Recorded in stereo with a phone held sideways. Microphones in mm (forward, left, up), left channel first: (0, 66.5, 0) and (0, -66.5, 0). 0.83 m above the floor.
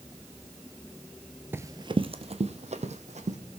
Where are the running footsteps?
15° right (ahead or behind), 0.8 m; by 3.4 s 60° right (ahead or behind), 2.5 m.